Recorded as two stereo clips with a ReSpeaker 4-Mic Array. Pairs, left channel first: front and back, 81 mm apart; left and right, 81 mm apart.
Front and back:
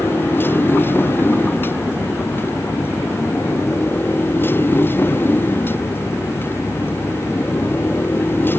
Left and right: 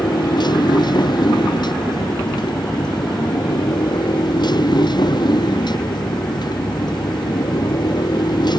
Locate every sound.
0.0 s a motorcycle: 65° left